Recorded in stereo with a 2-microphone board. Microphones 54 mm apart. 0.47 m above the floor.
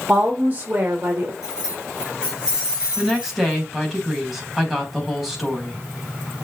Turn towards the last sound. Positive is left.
turn(degrees=-5)  # may be behind; listen again after turning